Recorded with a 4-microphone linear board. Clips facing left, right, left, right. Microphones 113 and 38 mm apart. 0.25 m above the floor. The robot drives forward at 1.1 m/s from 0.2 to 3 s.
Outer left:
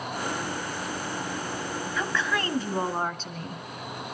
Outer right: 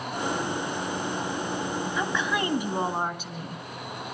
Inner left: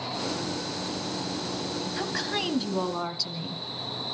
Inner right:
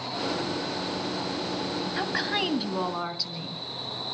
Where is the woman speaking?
20° right (ahead or behind), 1.1 m; by 3.6 s 10° right (ahead or behind), 1.9 m.